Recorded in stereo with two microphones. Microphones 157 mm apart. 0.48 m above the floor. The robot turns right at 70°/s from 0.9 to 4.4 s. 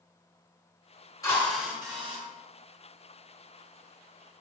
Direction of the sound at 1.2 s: 155° left.